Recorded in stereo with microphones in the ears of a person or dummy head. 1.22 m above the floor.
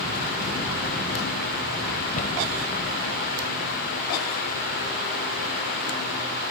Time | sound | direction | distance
2.2 | a cupboard door | 45° left (ahead or behind) | ?